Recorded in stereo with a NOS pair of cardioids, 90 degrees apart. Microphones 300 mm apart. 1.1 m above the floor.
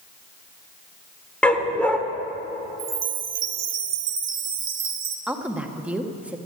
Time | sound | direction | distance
1.4 | a dog barking | 5° left | 1.5 m
2.8 | a chime | 70° right | 1.6 m
5.3 | a woman speaking | 5° right | 1.3 m